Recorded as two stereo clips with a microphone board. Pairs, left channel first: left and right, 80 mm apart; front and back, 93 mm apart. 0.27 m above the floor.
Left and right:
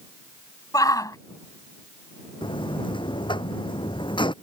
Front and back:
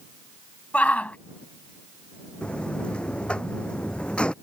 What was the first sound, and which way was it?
A shout, 70° left.